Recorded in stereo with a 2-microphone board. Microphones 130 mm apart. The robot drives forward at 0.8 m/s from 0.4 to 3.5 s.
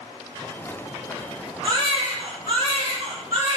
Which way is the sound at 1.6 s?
55° right (ahead or behind).